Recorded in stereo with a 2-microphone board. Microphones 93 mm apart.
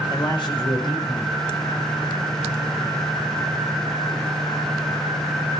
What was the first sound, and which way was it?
A man speaking, 55° left (ahead or behind).